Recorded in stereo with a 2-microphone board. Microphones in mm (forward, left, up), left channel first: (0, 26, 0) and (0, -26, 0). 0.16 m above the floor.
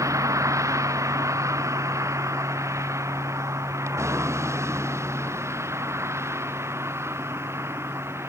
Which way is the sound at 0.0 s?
85° right.